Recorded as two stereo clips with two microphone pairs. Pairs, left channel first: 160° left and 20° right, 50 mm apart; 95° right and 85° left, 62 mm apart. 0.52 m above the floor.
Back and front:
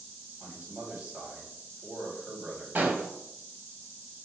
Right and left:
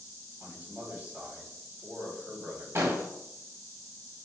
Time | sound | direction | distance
0.4 | a man speaking | 40° left | 1.9 m
2.8 | an explosion | 40° left | 0.6 m